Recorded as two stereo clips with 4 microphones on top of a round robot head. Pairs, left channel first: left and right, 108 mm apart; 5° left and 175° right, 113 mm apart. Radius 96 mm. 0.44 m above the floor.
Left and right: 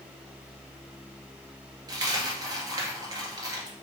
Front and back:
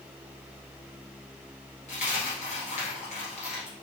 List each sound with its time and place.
1.9 s a dropped coin: 35° right, 1.7 m